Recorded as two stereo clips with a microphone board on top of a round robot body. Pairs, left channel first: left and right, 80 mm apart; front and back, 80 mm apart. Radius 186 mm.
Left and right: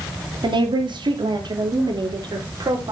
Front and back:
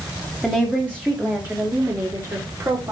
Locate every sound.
0.4 s a woman speaking: 100° right, 3 m; by 2.9 s 130° right, 4 m